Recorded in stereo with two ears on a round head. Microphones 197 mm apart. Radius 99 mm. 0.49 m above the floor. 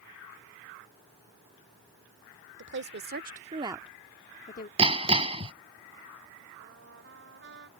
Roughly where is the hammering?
Right.